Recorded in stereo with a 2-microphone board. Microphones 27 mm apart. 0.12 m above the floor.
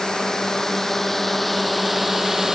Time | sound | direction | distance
0.0 | a drone | 25° left (ahead or behind) | ?